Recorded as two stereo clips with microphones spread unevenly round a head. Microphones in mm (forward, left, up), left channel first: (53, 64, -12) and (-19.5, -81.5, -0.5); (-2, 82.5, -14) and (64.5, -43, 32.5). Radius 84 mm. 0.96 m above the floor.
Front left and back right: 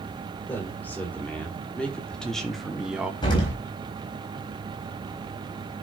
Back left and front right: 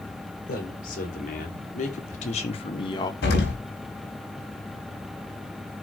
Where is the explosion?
130° left, 4 m.